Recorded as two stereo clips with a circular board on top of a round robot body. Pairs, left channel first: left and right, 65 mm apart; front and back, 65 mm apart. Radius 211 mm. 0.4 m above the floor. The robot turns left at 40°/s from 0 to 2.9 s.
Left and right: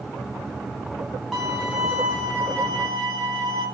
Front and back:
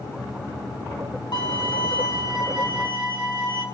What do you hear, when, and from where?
1.3 s a violin: 5° right, 4.5 m; by 3.6 s 65° right, 4.5 m